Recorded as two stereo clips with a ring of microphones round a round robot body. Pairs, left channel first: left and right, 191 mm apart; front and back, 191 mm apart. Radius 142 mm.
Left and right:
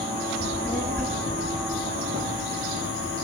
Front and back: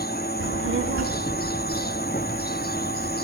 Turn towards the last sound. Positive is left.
turn(degrees=-165)